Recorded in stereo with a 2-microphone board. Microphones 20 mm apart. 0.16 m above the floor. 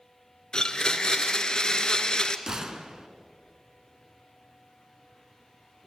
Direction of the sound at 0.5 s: 45° left (ahead or behind).